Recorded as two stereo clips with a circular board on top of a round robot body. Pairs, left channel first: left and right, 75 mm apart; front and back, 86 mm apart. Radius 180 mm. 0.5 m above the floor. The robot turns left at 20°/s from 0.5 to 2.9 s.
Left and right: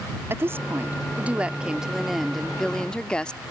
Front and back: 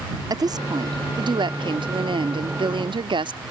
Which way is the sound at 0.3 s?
145° right.